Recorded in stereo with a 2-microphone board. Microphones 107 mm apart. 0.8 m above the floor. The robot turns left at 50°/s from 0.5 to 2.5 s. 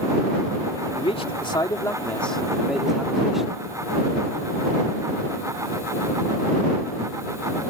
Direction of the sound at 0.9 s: 75° left.